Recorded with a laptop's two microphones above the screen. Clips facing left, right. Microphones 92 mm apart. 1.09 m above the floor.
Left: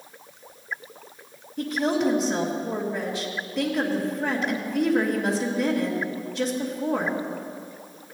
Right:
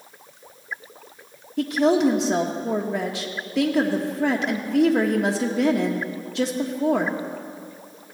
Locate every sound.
1.6 s a woman speaking: 75° right (ahead or behind), 1.3 m